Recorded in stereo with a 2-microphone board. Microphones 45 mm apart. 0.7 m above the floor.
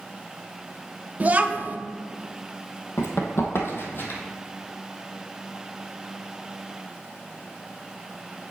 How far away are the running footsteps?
About 1.5 m.